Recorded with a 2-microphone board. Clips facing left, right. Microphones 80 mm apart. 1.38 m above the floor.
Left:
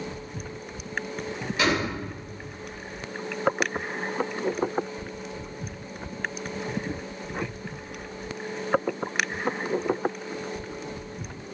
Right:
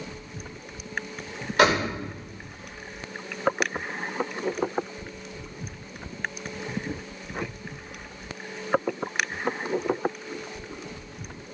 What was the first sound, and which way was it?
A door slam, 65° right (ahead or behind).